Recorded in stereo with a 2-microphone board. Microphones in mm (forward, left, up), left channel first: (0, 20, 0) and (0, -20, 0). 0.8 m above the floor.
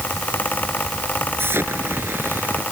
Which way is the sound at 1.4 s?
80° right.